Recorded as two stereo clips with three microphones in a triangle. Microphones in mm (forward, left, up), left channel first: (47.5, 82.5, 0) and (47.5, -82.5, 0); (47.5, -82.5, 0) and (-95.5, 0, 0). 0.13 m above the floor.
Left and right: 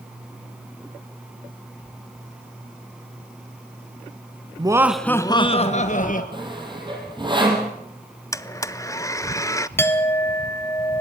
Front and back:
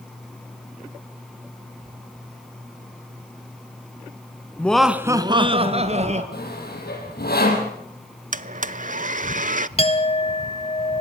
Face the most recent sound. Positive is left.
turn(degrees=15)